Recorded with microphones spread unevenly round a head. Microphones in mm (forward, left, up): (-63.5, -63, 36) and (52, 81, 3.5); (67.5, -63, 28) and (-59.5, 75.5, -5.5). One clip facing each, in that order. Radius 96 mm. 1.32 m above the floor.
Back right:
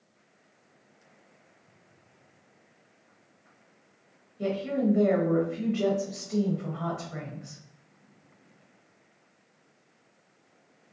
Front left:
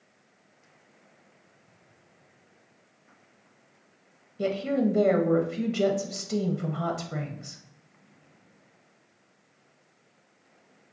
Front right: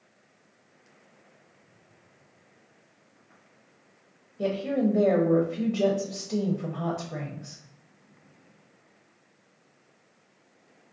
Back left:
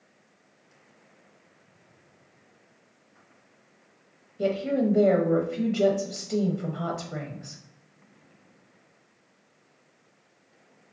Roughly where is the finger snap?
No finger snap in this recording.